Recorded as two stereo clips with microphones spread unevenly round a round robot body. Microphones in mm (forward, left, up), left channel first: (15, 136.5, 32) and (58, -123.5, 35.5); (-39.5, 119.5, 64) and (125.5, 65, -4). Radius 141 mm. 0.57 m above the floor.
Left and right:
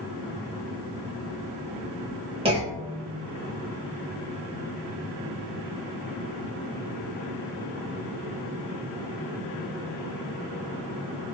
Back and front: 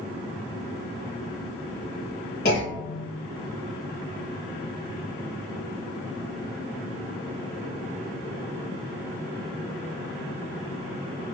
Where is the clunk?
155° right, 0.7 m.